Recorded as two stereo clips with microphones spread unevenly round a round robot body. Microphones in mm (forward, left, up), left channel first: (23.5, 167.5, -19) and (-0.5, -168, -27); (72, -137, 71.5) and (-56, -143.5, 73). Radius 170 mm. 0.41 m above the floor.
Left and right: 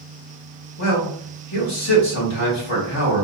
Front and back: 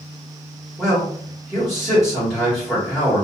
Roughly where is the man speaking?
Left.